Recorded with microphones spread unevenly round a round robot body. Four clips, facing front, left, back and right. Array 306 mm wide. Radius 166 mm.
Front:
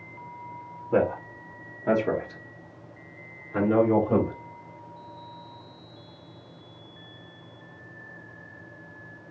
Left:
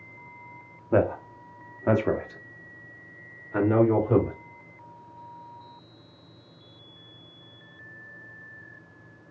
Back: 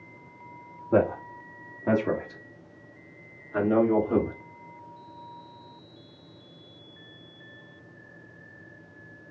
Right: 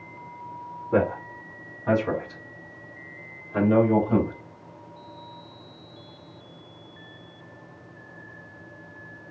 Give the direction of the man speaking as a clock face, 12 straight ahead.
9 o'clock.